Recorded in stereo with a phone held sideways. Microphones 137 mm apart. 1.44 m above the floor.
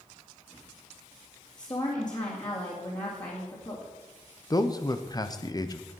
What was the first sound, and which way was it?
A woman speaking, 30° left (ahead or behind).